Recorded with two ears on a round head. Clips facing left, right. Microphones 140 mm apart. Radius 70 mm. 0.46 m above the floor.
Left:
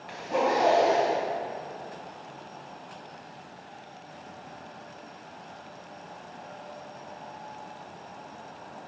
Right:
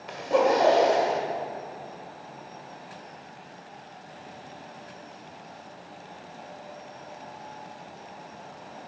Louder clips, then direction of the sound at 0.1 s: Right 4 dB; 60° right (ahead or behind).